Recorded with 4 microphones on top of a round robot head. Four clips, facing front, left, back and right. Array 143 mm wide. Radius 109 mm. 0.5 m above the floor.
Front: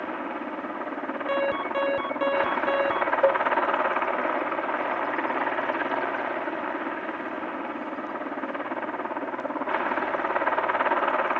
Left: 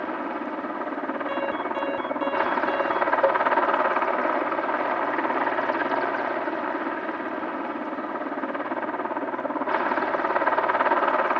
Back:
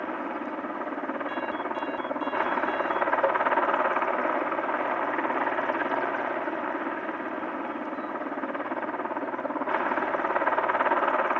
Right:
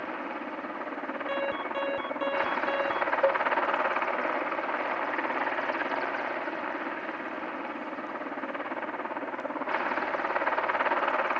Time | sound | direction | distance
0.0 | a helicopter | 100° left | ?
1.3 | an alarm | 5° right | ?
3.2 | a cowbell | 15° left | ?